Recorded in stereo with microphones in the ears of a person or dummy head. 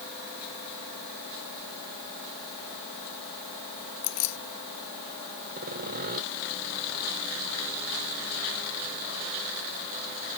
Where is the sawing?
50° right (ahead or behind).